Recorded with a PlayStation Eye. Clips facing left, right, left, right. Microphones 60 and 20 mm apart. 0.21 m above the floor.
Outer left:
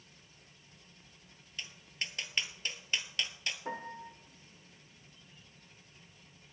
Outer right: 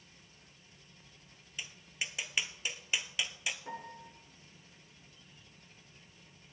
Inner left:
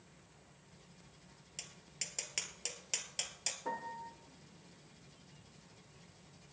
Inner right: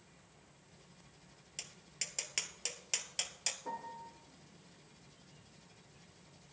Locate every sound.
1.6 s tapping: 10° right (ahead or behind), 1.1 m
3.6 s a piano: 35° left (ahead or behind), 0.9 m